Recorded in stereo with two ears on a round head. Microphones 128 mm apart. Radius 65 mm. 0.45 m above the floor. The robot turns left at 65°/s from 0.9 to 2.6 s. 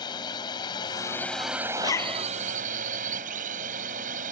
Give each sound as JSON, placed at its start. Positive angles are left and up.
{"t": 0.0, "sound": "a drone", "azimuth_deg": 35}
{"t": 1.8, "sound": "a zipper", "azimuth_deg": 30}